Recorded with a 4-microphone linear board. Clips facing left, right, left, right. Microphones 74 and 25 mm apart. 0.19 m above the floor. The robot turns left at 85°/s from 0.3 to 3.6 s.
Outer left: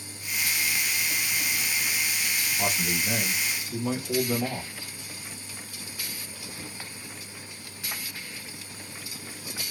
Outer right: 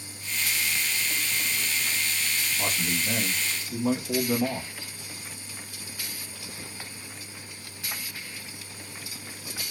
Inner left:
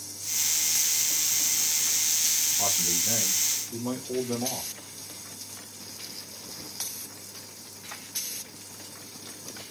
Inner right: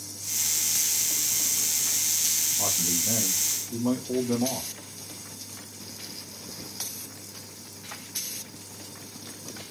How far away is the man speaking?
About 1.1 m.